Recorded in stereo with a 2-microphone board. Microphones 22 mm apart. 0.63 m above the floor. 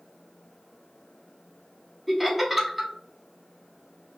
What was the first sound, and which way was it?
Laughter, 10° right (ahead or behind).